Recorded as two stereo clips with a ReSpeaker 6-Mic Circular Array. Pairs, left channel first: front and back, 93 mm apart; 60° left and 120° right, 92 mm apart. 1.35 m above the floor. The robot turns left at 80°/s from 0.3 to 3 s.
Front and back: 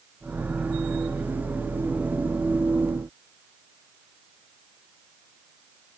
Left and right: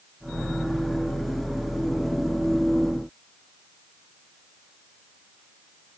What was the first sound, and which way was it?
Only background noise.